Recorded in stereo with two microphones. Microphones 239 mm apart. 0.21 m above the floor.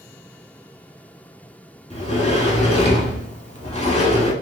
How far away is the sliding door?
About 0.8 m.